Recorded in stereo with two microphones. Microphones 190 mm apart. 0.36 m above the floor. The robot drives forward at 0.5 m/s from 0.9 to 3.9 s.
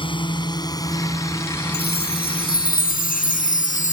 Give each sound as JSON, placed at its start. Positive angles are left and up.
{"t": 0.0, "sound": "a drone", "side_deg": 25}
{"t": 1.7, "sound": "a chime", "side_deg": 60}